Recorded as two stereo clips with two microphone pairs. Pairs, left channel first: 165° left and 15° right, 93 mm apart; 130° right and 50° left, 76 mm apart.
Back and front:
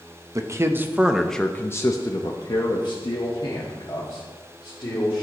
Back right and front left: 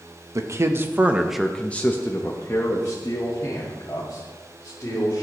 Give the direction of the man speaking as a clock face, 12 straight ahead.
11 o'clock.